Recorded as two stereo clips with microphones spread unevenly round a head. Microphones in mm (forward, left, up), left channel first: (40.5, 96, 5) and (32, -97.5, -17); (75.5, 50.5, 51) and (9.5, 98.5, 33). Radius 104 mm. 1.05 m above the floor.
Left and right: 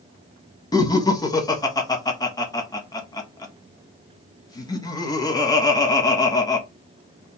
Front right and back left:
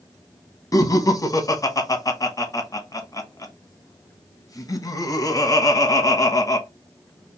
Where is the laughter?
15° left, 1.3 m.